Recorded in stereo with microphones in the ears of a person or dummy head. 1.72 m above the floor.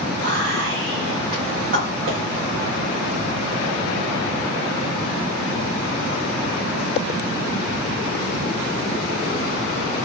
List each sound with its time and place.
0.2 s whispering: 60° right (ahead or behind), 1.0 m